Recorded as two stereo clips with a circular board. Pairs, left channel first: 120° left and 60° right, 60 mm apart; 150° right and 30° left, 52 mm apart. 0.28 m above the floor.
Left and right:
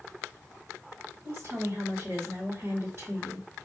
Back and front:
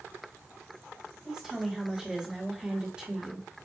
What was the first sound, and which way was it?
A woman speaking, 25° right.